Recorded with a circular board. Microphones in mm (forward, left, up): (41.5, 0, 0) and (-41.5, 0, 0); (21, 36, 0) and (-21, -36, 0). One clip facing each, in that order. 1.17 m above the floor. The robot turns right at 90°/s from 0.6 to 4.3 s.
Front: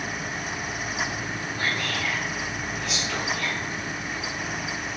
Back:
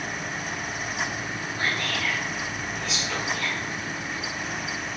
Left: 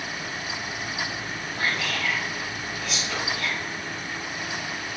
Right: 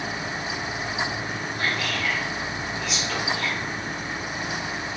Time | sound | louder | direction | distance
1.6 | whispering | back 1 dB, even | 115° left | 2.5 m